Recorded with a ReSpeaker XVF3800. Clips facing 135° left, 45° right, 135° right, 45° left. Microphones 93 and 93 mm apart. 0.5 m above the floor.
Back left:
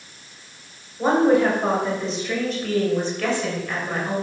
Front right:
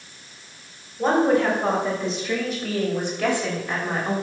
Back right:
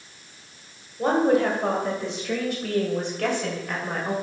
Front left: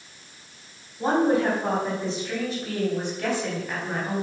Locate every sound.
1.0 s a woman speaking: 145° right, 3 m; by 4.2 s 105° right, 2.5 m